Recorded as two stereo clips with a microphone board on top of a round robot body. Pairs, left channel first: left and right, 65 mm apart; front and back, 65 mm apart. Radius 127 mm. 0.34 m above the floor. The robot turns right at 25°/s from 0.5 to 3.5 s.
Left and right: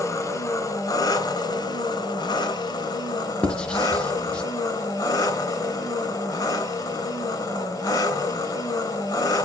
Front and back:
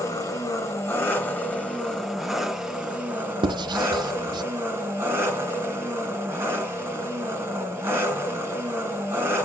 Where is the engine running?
45° left, 2.5 m; by 9.5 s 120° left, 2.5 m.